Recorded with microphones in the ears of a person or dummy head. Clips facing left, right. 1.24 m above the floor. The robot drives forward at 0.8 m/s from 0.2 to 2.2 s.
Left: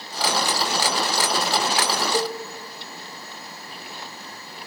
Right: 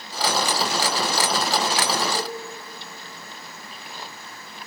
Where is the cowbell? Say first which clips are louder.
Left 5 dB; 55° left (ahead or behind), 2 m.